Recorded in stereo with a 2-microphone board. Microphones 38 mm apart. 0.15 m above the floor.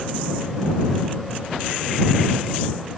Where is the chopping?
No chopping in this recording.